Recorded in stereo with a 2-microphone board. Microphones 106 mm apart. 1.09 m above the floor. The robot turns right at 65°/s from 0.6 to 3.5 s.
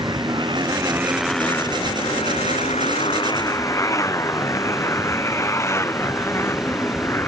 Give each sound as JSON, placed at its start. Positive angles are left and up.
{"t": 0.0, "sound": "a motorcycle", "side_deg": -45}